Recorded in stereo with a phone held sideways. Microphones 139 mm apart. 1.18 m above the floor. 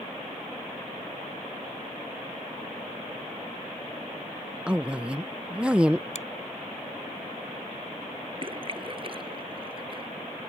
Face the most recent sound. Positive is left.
turn(degrees=-40)  # may be behind; listen again after turning